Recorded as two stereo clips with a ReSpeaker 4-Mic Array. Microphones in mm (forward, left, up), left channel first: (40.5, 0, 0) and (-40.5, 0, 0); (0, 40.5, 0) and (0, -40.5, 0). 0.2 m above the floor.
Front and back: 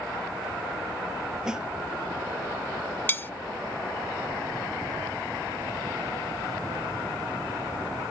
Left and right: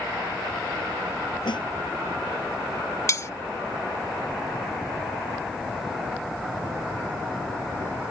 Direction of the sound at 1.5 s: 100° left.